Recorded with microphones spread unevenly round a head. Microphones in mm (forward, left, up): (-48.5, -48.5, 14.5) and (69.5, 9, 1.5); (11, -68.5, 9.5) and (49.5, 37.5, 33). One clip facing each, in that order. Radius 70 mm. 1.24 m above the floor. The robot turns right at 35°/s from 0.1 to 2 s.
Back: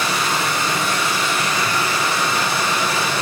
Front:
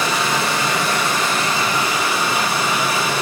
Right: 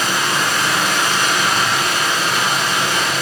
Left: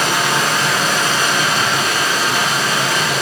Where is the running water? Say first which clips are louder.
Front 2 dB, left 2 dB; 40° left, 0.8 m; by 3.2 s 105° left, 0.8 m.